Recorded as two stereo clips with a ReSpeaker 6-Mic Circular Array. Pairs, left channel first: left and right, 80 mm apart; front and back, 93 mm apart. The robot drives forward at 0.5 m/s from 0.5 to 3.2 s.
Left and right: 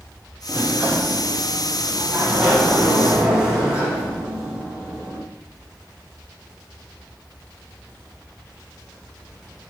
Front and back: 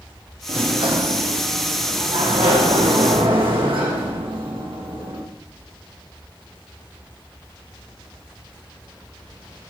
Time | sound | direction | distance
0.5 | a sliding door | 165° right | 1.5 m